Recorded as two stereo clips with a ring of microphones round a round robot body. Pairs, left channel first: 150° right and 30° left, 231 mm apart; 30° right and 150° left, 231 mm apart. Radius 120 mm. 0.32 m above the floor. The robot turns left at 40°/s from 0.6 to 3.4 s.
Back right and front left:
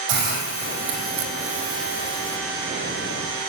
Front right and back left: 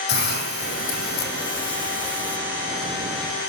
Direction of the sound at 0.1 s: 15° left.